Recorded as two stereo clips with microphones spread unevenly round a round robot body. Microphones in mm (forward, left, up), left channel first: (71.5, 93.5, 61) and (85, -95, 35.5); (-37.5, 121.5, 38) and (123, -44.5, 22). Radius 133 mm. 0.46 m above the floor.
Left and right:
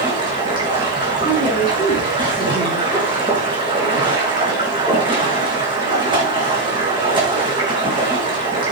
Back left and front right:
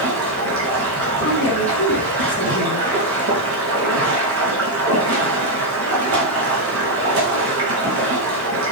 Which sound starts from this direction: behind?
A woman speaking, at 1.2 s.